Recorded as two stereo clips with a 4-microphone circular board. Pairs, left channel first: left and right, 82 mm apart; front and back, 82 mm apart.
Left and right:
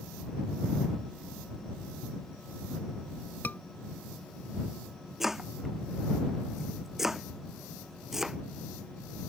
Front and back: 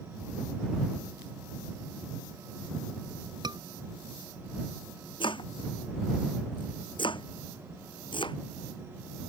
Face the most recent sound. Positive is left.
turn(degrees=-5)